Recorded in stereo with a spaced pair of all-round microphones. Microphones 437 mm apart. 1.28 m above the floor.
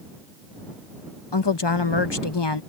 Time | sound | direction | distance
1.3 | a woman speaking | 70° left (ahead or behind) | ?